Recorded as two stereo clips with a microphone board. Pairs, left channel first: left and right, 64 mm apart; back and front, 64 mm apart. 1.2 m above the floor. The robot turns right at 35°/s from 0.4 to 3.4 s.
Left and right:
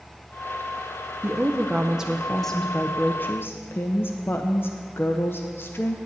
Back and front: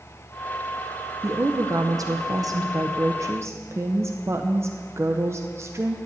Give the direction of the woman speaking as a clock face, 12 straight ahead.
1 o'clock.